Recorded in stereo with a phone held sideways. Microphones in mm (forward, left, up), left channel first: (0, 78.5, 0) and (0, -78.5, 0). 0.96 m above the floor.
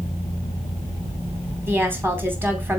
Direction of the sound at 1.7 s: 15° right (ahead or behind).